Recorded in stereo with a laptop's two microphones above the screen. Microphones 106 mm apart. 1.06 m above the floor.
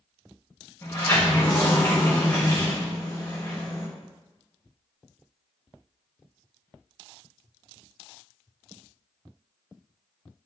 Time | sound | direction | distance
0.8 | a sliding door | 30° left (ahead or behind) | 1.1 m